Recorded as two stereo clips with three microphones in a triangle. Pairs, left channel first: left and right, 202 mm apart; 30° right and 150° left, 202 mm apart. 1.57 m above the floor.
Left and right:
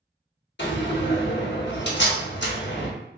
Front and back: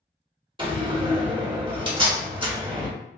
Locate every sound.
0.6 s a door slam: 90° left, 1.1 m